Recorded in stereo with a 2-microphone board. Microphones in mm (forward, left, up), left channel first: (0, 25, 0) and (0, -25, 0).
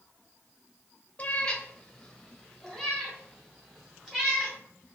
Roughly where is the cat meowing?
Left.